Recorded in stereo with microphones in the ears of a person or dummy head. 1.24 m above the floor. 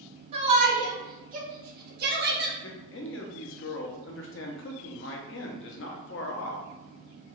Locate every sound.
0.3 s a shout: 50° right (ahead or behind), 1.7 m
2.6 s a man speaking: 60° left (ahead or behind), 0.8 m